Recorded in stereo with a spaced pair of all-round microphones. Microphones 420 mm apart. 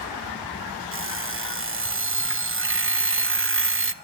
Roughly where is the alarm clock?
Right.